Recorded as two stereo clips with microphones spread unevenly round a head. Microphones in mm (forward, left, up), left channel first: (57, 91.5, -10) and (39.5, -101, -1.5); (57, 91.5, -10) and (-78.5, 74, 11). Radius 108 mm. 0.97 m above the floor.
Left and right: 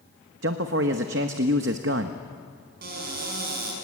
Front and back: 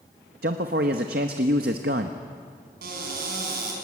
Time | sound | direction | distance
0.4 | a man speaking | 135° right | 0.9 m
2.8 | a cupboard door | 145° right | 5 m